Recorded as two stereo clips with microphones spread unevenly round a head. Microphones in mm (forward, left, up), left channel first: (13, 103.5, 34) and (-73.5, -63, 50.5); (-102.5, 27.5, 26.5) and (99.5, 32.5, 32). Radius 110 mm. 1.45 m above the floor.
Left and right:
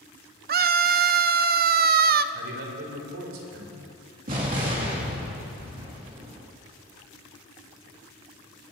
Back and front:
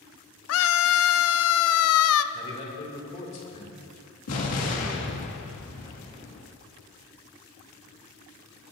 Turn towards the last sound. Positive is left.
turn(degrees=-160)